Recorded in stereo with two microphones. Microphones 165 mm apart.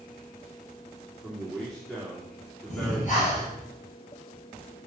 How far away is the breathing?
About 5.5 m.